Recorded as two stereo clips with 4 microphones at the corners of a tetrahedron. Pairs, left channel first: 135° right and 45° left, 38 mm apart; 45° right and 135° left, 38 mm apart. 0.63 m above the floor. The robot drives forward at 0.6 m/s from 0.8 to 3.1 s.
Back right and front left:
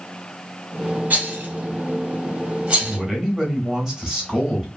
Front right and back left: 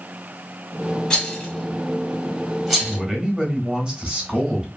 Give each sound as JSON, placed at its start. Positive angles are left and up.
{"t": 1.1, "sound": "a rattle", "azimuth_deg": 20, "distance_m": 1.7}
{"t": 2.8, "sound": "a man speaking", "azimuth_deg": 85, "distance_m": 1.1}